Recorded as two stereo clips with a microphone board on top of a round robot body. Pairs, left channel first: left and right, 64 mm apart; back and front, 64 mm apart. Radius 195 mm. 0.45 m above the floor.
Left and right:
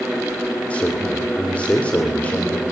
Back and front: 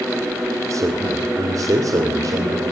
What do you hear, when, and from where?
0.7 s a man speaking: 25° left, 2 m; by 2.6 s 20° left, 3 m